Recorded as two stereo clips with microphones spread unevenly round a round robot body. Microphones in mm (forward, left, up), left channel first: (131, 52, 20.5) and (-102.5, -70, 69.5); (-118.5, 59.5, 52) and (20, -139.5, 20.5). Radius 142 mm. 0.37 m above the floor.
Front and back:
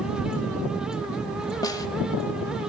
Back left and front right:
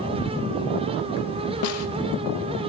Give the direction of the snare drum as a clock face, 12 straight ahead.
9 o'clock.